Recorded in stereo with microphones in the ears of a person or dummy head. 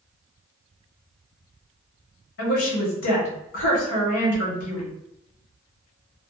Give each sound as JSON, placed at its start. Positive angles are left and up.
{"t": 2.4, "sound": "a woman speaking", "side_deg": 65, "distance_m": 1.1}